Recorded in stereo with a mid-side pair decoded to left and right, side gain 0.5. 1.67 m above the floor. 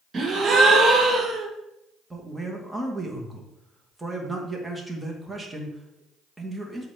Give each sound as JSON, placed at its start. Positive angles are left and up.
{"t": 0.1, "sound": "a gasp", "azimuth_deg": -40, "distance_m": 1.4}
{"t": 2.1, "sound": "a man speaking", "azimuth_deg": -10, "distance_m": 1.8}